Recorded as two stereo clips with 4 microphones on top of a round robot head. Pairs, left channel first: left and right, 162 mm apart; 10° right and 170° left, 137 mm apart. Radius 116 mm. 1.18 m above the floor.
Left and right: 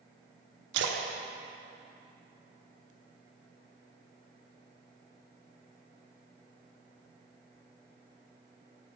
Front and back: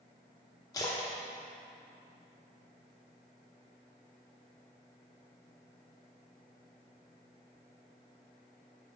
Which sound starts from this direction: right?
A splash, at 0.7 s.